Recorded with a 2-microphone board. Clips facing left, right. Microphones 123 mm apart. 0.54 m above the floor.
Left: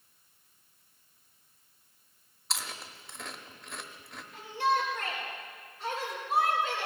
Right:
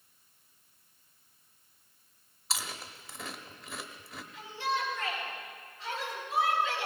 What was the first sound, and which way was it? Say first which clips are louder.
Chewing: right 1 dB; centre (ahead or behind).